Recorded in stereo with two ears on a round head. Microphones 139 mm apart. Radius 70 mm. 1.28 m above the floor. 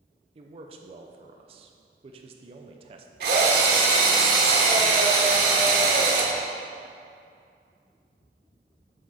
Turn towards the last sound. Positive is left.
turn(degrees=-70)  # may be behind; listen again after turning